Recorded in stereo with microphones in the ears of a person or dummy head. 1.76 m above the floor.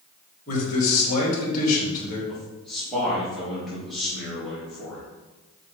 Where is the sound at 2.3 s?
Centre (ahead or behind), 3 m.